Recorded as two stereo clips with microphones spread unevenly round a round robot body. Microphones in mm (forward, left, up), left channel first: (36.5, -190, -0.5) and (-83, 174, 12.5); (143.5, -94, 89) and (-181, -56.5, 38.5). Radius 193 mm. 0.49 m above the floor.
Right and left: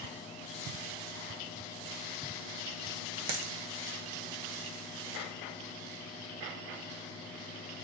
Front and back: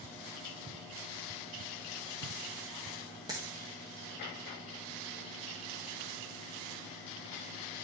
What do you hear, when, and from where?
3.3 s a dropped coin: 90° left, 1.2 m